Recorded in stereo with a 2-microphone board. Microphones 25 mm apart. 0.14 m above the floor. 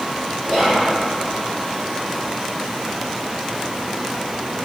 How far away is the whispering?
About 1.5 m.